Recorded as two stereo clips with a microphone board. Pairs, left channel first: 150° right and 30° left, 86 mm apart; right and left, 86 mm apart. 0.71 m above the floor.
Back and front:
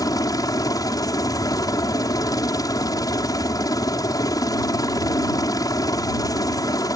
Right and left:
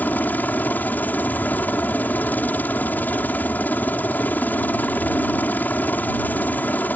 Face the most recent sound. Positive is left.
turn(degrees=-150)